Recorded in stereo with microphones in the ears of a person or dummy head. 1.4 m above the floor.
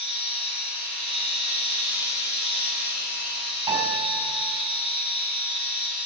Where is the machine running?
70° left (ahead or behind), 6 m.